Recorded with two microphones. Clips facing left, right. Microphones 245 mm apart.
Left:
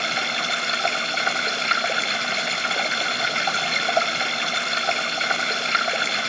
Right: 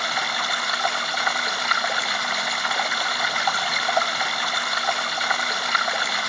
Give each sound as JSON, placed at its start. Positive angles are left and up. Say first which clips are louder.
{"t": 0.0, "sound": "running water", "louder": "left 2 dB", "side_deg": 25, "distance_m": 1.0}